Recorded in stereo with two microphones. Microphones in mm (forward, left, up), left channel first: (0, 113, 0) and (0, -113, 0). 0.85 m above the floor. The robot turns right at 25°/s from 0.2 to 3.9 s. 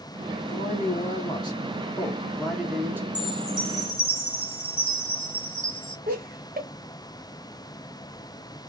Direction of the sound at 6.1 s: 40° right (ahead or behind).